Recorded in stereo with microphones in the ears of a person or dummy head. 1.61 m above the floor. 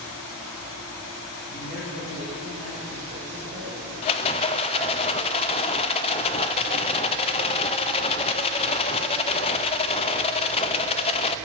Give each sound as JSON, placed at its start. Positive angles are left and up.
{"t": 1.5, "sound": "a man speaking", "side_deg": -50, "distance_m": 6.0}
{"t": 4.0, "sound": "a rattle", "side_deg": 30, "distance_m": 0.6}